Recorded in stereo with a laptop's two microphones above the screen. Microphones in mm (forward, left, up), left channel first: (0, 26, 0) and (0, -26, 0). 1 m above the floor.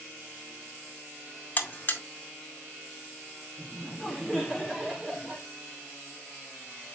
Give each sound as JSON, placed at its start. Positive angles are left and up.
{"t": 1.6, "sound": "a buzzer", "side_deg": 40, "distance_m": 2.0}
{"t": 3.6, "sound": "laughter", "side_deg": 5, "distance_m": 2.0}